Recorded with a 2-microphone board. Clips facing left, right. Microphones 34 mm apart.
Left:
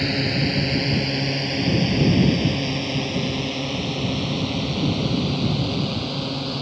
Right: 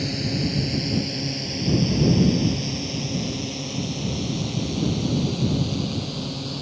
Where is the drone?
35° left (ahead or behind); by 6.6 s 25° left (ahead or behind).